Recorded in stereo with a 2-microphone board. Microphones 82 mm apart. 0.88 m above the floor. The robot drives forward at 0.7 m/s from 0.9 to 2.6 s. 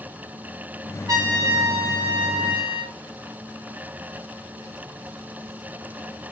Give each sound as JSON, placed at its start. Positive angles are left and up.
{"t": 1.1, "sound": "a trumpet", "side_deg": -45, "distance_m": 1.3}